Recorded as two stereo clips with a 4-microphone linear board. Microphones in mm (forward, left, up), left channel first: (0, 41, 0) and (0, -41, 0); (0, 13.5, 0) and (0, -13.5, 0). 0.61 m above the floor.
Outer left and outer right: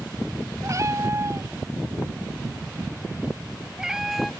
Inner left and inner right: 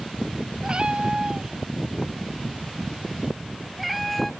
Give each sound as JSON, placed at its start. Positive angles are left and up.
{"t": 0.6, "sound": "a cat meowing", "side_deg": -40}